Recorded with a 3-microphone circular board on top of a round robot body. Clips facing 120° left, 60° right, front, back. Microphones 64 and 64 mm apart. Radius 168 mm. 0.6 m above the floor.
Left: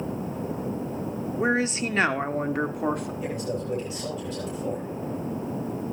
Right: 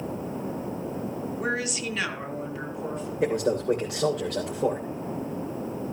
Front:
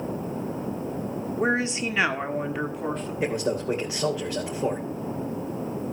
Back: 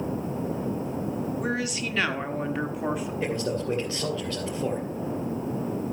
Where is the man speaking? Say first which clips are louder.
Right 6 dB, front 4 dB; 75° right, 3 m.